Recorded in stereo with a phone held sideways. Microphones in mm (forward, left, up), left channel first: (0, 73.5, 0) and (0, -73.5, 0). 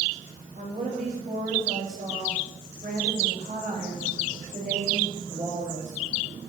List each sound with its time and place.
0.6 s a woman speaking: 75° right (ahead or behind), 6 m; by 6.0 s 50° right (ahead or behind), 6.5 m